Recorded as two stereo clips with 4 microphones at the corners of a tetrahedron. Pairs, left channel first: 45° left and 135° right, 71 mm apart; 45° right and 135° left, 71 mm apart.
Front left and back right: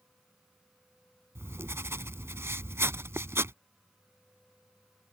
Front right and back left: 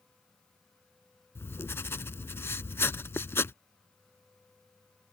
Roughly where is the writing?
Right.